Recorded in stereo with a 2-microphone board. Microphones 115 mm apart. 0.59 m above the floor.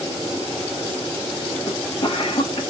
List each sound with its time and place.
1.7 s a cough: 50° left (ahead or behind), 1.9 m